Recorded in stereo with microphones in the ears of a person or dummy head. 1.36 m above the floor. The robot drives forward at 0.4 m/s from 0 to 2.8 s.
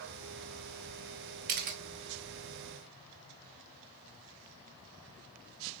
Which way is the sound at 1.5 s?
40° right (ahead or behind).